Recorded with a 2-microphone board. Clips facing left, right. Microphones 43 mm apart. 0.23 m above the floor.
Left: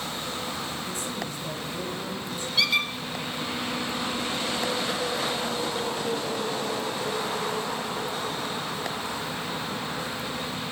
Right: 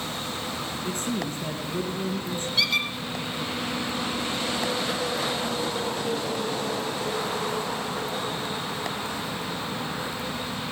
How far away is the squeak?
About 2 m.